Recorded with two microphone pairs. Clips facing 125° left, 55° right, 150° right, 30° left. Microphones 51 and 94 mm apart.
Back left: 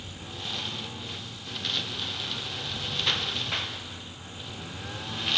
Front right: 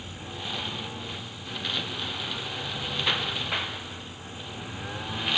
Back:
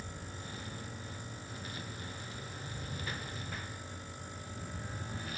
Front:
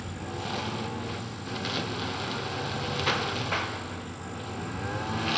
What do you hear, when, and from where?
0.0 s a lawn mower: 25° left